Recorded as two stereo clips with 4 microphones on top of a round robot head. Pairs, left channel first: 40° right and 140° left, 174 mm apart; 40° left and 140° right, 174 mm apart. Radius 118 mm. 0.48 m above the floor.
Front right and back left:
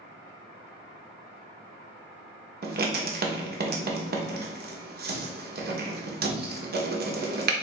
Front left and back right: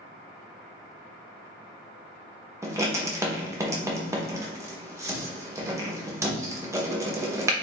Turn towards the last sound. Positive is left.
turn(degrees=145)